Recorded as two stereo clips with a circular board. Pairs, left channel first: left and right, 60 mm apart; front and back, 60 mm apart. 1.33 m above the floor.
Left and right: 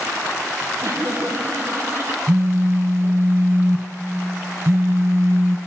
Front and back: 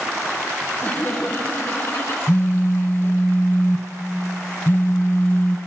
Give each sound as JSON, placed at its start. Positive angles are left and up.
{"t": 0.8, "sound": "laughter", "azimuth_deg": -65, "distance_m": 3.5}
{"t": 2.3, "sound": "a phone buzzing", "azimuth_deg": -50, "distance_m": 0.5}